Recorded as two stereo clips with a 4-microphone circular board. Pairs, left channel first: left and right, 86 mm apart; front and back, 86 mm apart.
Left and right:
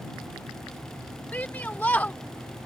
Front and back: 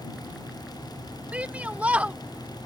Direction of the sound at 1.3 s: 130° left.